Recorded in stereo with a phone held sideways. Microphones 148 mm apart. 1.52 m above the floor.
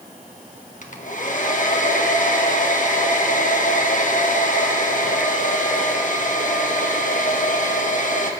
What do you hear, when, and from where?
0.8 s a hair dryer: 55° left (ahead or behind), 1.2 m